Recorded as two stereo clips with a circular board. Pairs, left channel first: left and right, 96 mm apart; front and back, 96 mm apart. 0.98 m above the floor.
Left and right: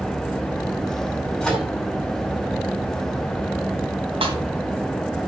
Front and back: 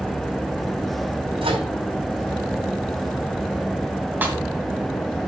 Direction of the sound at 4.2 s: 110° right.